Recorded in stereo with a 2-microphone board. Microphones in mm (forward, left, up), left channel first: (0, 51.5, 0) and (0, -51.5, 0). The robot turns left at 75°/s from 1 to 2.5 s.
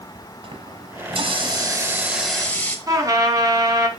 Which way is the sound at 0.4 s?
80° right.